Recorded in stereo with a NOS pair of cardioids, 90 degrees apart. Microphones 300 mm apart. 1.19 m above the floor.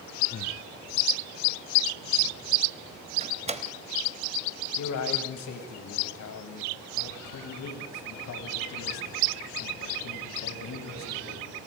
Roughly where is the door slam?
Ahead.